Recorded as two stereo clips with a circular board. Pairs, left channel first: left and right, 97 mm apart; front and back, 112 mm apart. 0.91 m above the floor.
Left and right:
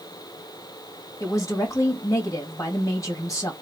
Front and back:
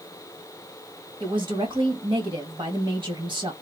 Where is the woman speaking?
145° left, 1.5 m.